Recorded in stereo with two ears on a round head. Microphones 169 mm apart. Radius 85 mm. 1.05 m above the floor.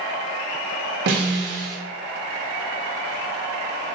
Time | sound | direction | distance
1.1 | a snare drum | 60° right (ahead or behind) | 1.1 m